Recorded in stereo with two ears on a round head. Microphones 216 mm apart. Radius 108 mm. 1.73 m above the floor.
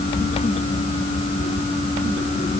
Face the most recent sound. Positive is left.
No sound to turn to.